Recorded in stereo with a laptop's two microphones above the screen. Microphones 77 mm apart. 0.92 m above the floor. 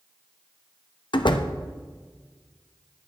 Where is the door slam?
65° left (ahead or behind), 0.6 m.